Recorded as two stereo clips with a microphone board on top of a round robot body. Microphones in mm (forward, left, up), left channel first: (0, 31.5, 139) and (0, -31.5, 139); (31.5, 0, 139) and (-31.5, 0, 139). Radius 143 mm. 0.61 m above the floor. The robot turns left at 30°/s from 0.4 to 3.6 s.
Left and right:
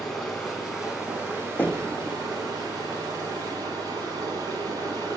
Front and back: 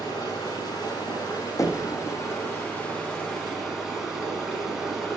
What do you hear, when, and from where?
0.0 s running water: 5° left, 0.8 m; by 5.2 s 95° right, 0.8 m
1.6 s knocking: 30° left, 0.7 m; by 1.9 s 20° left, 0.7 m